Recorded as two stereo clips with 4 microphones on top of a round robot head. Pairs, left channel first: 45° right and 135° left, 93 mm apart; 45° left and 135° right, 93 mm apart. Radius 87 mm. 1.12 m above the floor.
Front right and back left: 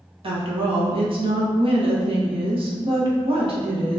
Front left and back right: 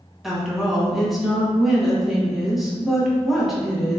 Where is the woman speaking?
140° left, 1.5 m.